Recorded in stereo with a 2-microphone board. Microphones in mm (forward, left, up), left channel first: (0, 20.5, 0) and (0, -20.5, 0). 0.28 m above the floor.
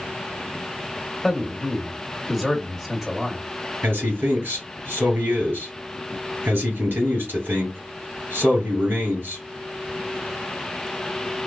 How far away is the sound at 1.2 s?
About 1.0 m.